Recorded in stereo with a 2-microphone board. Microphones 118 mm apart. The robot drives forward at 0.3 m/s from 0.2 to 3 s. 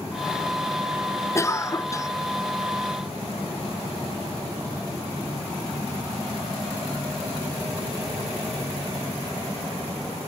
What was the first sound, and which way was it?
A cough, 25° left (ahead or behind).